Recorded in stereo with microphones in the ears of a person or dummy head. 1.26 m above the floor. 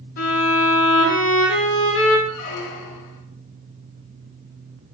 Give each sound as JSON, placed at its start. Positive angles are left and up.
{"t": 0.2, "sound": "a violin", "side_deg": 65, "distance_m": 4.0}
{"t": 2.3, "sound": "a squeak", "side_deg": 75, "distance_m": 1.1}